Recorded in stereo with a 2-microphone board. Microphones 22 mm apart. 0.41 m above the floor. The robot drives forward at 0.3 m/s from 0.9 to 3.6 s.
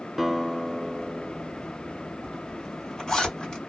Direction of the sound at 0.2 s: 5° right (ahead or behind).